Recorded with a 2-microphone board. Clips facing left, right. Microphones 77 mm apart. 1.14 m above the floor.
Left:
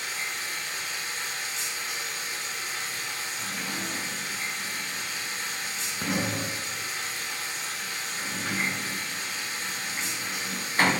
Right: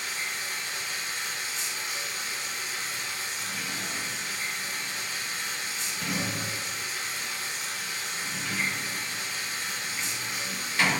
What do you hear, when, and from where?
0.0 s running water: 30° left (ahead or behind), 3.5 m
3.4 s a sliding door: 40° left (ahead or behind), 0.6 m